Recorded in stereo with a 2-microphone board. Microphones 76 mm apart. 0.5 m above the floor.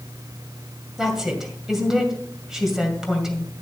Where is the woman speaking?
5° right (ahead or behind), 2.5 m.